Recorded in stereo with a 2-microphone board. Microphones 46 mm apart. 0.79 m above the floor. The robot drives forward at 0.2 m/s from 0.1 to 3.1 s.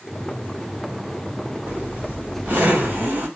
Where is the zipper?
55° right (ahead or behind), 1.8 m; by 3.3 s 60° right (ahead or behind), 1.7 m.